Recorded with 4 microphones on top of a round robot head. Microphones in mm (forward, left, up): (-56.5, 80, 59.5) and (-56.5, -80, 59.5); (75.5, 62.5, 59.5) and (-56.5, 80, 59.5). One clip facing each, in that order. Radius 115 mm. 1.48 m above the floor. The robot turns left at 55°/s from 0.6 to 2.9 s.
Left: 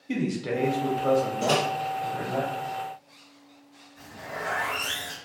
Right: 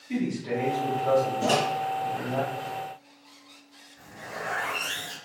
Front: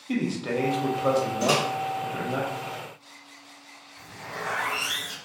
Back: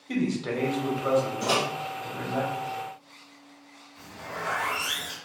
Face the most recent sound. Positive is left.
turn(degrees=130)